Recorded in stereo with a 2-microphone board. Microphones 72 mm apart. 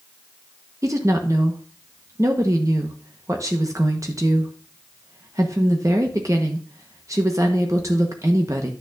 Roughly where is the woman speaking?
Right.